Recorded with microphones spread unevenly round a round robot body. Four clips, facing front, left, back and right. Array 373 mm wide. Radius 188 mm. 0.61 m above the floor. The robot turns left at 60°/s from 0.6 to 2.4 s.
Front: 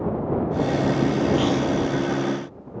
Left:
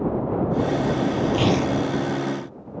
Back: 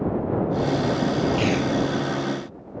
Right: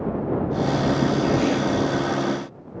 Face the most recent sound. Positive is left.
turn(degrees=50)